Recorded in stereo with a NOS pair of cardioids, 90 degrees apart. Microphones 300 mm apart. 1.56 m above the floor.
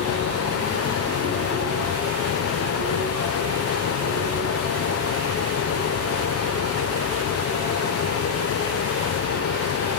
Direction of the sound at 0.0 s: 50° left.